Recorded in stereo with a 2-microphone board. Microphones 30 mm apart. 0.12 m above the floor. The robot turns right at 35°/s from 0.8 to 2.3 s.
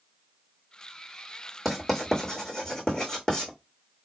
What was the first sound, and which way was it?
Writing, centre (ahead or behind).